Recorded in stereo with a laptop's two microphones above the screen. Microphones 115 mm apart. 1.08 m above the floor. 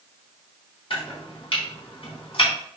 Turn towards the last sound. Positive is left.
turn(degrees=60)  # may be behind; listen again after turning